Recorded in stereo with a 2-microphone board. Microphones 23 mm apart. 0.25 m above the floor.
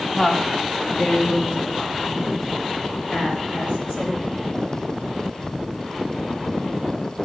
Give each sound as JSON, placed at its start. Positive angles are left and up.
{"t": 0.1, "sound": "a woman speaking", "side_deg": 35, "distance_m": 1.8}